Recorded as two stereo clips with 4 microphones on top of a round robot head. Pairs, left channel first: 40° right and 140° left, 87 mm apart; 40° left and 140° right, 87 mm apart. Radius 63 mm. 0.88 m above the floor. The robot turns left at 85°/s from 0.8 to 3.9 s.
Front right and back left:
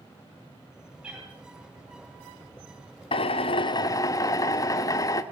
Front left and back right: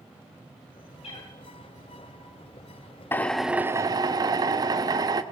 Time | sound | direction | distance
1.0 | a cat meowing | 60° left | 8.5 m
3.1 | a drill | 25° right | 1.1 m